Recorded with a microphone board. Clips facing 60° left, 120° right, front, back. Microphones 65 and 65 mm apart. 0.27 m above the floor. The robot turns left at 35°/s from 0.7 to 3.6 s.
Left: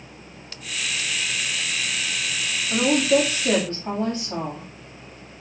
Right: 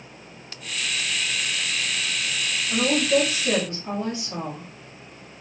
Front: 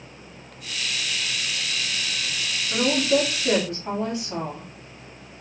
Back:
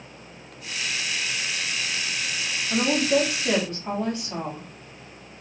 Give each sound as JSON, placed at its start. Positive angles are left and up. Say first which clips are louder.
{"t": 2.7, "sound": "a woman speaking", "louder": "left 2 dB, front 1 dB", "azimuth_deg": 115, "distance_m": 2.0}